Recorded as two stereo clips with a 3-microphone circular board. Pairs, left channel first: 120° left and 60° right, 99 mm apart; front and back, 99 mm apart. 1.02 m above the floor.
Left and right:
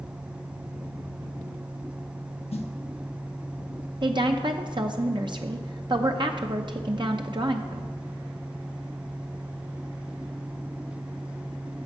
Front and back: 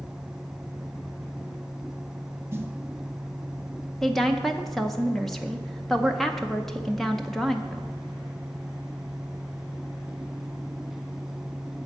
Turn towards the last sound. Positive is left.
turn(degrees=-90)